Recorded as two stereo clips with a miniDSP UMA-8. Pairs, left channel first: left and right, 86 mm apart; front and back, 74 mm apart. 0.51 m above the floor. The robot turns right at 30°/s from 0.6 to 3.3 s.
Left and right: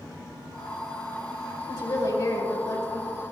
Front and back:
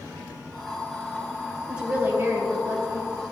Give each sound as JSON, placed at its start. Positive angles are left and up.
{"t": 1.7, "sound": "a woman speaking", "azimuth_deg": 105, "distance_m": 2.5}